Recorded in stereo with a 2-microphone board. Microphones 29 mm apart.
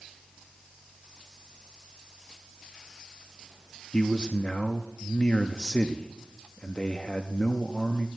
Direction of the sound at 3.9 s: 30° left (ahead or behind).